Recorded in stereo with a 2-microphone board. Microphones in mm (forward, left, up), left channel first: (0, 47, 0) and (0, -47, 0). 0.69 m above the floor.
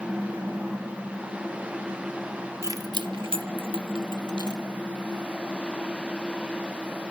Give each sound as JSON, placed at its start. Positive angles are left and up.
{"t": 2.6, "sound": "keys jangling", "side_deg": -35, "distance_m": 0.8}